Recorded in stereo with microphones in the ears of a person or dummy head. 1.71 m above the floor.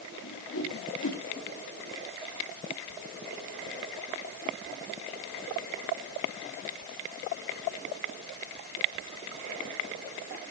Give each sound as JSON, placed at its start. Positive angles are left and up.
{"t": 0.2, "sound": "a whoosh", "side_deg": 75, "distance_m": 3.0}